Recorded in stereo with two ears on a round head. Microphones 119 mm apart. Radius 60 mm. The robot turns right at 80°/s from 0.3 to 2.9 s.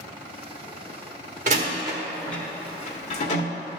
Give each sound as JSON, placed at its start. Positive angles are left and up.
{"t": 1.5, "sound": "a door slam", "side_deg": -60, "distance_m": 1.3}